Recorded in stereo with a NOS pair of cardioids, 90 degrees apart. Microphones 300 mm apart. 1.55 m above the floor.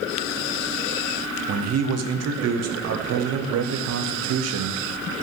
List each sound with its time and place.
1.5 s a man speaking: 60° right, 0.9 m